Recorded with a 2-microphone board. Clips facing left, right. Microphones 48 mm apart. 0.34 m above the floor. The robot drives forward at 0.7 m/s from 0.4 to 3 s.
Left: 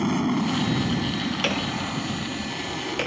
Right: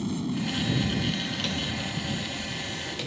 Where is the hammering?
55° left (ahead or behind); by 3.1 s 50° left (ahead or behind).